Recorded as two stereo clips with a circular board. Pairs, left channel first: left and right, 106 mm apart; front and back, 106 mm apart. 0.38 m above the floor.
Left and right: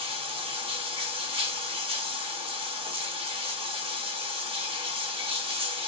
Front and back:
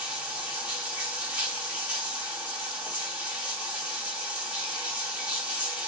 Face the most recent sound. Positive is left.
turn(degrees=-105)